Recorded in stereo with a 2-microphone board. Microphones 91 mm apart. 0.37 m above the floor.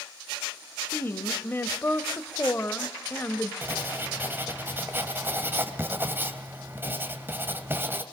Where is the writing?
25° right (ahead or behind), 1.9 m.